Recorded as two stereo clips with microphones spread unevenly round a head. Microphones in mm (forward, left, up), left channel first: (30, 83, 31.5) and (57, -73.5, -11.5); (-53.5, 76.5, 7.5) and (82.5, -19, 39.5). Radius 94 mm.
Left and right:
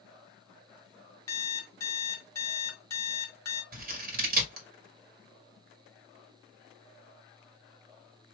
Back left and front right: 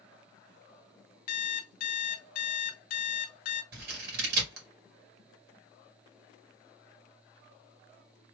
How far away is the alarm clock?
About 0.8 m.